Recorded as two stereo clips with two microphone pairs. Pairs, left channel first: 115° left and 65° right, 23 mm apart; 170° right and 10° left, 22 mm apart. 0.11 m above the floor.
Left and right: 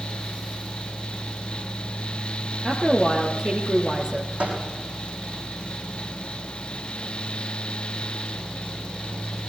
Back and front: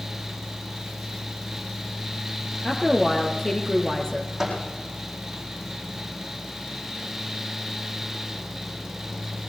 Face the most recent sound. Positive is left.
turn(degrees=-70)